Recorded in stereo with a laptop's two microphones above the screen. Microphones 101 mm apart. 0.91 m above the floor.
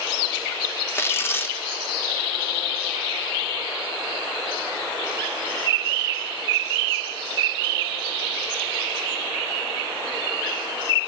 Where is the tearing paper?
25° left (ahead or behind), 0.9 m.